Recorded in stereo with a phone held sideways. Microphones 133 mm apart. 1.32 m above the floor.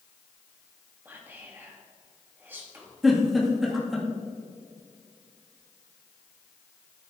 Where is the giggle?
Centre (ahead or behind), 2 m.